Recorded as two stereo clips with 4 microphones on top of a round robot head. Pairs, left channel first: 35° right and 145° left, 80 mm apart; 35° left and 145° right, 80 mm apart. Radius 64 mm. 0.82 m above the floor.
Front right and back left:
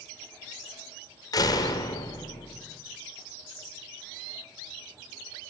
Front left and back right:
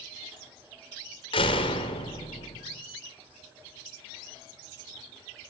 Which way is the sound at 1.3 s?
10° left.